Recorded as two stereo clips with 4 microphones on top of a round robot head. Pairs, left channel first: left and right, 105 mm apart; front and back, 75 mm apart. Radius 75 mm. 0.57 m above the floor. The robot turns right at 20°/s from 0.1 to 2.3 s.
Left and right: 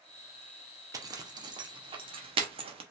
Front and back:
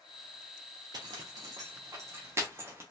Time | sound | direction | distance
0.9 | a zipper | 145° right | 0.6 m